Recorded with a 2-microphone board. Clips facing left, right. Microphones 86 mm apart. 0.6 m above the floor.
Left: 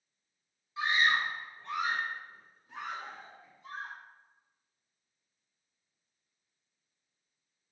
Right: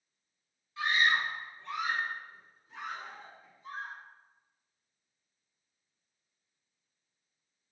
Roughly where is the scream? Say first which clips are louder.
Even; left.